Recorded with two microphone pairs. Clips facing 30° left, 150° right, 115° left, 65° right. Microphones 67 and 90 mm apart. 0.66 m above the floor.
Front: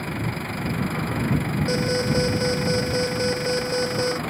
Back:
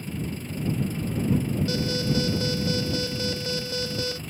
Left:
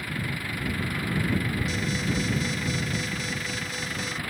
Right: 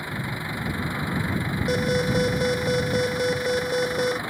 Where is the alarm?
35° right.